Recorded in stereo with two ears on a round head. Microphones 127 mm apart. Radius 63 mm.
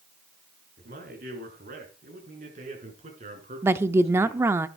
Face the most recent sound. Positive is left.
turn(degrees=-20)  # may be behind; listen again after turning